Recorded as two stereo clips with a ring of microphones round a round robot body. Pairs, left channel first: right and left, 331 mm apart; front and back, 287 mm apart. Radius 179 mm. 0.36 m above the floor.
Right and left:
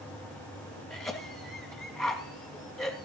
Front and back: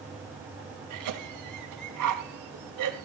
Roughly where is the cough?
Behind.